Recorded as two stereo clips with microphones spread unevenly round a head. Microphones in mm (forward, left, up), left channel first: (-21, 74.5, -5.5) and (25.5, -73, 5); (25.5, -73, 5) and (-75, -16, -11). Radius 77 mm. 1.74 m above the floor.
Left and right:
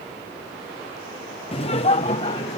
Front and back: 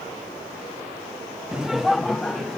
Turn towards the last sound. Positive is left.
turn(degrees=50)